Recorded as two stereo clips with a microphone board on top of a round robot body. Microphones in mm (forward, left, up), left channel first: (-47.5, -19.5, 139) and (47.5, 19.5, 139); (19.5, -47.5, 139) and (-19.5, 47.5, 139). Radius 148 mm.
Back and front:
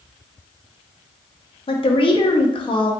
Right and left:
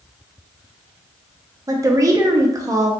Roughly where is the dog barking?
No dog barking in this recording.